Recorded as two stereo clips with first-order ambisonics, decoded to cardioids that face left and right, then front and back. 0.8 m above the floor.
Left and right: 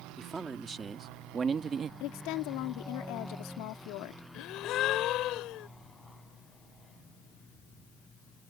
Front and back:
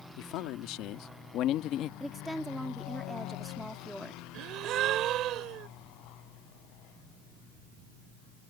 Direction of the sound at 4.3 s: 135° left.